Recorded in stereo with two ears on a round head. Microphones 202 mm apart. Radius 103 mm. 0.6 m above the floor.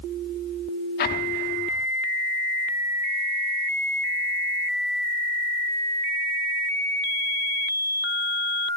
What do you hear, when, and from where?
1.0 s an explosion: 45° left (ahead or behind), 1.0 m